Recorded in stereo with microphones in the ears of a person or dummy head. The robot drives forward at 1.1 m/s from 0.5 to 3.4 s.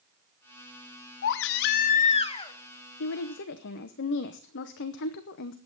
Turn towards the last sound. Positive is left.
turn(degrees=60)  # may be behind; listen again after turning